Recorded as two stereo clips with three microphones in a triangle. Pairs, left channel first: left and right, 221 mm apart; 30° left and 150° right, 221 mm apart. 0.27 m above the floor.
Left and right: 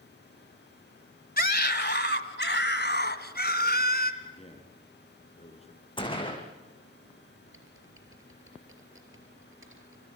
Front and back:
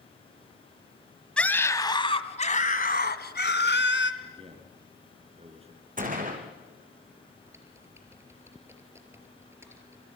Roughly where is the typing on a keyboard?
Right.